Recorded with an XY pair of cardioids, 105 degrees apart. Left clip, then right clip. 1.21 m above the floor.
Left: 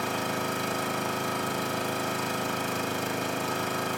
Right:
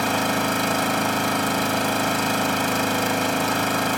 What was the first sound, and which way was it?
An engine running, 65° right.